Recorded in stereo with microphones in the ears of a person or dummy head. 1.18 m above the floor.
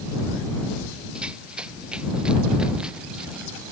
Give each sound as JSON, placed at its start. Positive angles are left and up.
{"t": 1.1, "sound": "running footsteps", "side_deg": -10}